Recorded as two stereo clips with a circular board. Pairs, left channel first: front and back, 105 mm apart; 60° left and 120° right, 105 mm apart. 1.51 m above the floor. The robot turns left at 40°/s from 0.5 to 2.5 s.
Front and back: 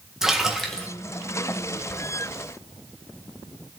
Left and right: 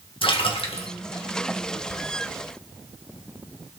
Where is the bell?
I don't hear a bell.